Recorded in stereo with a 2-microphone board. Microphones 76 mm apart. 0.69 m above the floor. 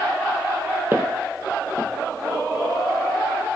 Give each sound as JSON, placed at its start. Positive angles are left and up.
{"t": 0.9, "sound": "footsteps", "side_deg": -25, "distance_m": 1.0}